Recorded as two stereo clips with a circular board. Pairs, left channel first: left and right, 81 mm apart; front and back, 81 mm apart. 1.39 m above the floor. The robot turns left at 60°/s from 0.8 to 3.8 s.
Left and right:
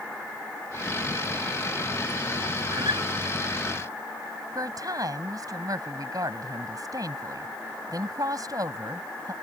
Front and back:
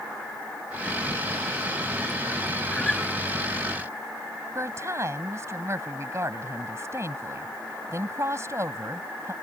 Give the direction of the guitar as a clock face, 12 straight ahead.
2 o'clock.